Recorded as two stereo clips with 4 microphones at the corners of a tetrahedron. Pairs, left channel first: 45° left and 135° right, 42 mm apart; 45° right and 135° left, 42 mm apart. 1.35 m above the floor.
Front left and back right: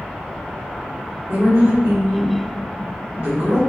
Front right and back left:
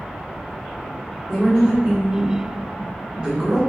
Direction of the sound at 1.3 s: 150° right.